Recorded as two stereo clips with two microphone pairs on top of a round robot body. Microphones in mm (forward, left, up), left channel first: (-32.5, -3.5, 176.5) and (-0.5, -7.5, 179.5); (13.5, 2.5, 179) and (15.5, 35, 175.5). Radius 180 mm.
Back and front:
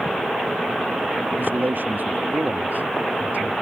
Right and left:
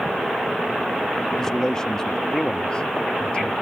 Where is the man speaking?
20° right; by 3.5 s 35° right.